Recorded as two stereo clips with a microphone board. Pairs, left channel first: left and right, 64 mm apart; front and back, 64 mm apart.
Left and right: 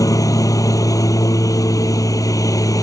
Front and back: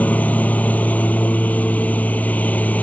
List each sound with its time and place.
0.0 s a lawn mower: 65° left